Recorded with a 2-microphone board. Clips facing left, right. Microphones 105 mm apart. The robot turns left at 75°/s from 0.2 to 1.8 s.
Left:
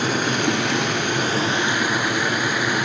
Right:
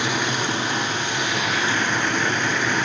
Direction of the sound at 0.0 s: 130° left.